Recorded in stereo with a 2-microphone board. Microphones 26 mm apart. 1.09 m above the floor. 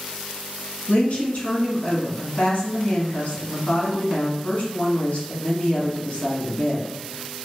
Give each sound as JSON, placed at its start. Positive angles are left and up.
{"t": 0.9, "sound": "a woman speaking", "side_deg": 60, "distance_m": 1.2}